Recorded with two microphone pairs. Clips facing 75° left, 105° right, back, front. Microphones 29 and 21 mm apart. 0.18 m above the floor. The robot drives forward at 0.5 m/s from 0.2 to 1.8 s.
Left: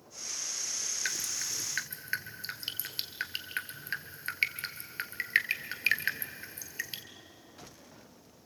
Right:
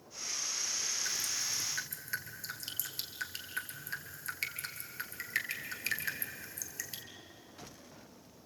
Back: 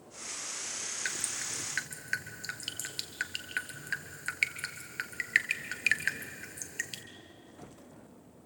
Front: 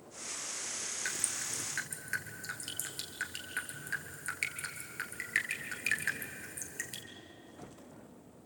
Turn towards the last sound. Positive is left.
turn(degrees=120)